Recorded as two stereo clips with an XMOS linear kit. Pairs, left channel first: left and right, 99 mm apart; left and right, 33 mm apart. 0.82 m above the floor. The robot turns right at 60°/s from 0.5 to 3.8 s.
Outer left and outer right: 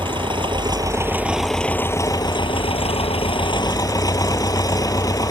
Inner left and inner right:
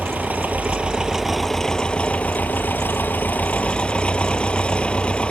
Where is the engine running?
60° right; by 5.3 s 140° left.